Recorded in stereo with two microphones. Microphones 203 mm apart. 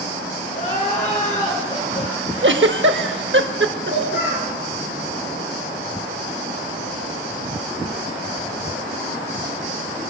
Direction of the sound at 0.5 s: 40° left (ahead or behind).